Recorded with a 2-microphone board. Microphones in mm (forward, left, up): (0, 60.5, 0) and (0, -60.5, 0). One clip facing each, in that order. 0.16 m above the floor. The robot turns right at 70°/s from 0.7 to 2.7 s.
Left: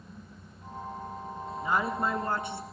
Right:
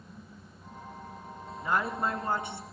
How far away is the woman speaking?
About 1.5 m.